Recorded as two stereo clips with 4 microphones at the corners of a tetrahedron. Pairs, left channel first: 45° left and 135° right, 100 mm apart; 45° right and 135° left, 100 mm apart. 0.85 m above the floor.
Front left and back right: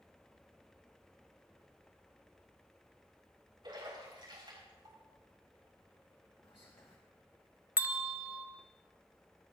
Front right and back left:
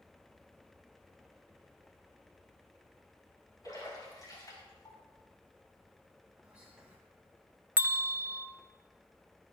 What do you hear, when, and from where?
3.6 s a splash: 95° right, 4.5 m
6.4 s whispering: 65° left, 1.3 m
7.8 s a bell: 175° right, 0.6 m